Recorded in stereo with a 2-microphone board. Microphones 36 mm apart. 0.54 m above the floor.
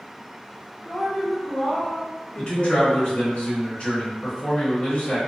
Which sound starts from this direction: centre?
A woman speaking, at 0.8 s.